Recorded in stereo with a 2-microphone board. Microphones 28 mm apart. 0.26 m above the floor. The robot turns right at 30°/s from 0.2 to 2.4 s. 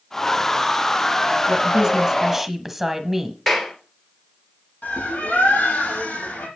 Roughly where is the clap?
Centre.